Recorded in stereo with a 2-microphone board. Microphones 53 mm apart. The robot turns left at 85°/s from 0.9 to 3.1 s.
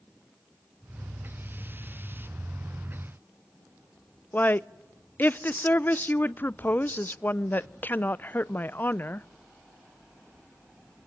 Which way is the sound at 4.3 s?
35° left (ahead or behind).